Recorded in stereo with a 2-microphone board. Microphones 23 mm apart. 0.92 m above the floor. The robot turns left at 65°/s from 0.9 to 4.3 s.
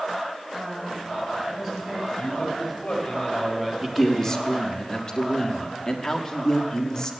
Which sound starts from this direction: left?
A man speaking, at 2.2 s.